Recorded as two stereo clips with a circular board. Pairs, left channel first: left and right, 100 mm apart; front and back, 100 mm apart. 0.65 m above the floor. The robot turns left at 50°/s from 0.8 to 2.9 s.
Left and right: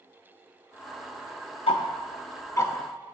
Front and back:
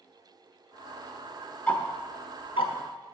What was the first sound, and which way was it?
Ticking, 75° left.